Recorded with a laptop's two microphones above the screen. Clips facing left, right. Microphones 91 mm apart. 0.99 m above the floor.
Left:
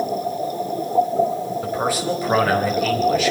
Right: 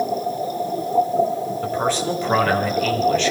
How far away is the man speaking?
About 5.5 m.